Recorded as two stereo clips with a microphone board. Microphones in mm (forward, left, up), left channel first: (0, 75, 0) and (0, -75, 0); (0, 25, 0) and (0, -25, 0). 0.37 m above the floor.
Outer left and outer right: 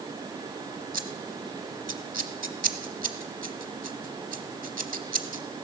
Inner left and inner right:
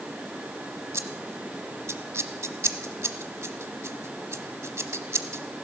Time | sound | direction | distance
0.9 | scissors | 75° right (ahead or behind) | 0.9 m